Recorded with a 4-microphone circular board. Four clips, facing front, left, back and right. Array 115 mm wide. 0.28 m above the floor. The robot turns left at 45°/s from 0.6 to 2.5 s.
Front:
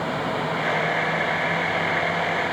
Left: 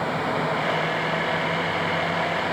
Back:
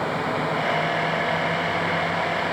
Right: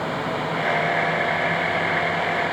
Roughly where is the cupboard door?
No cupboard door in this recording.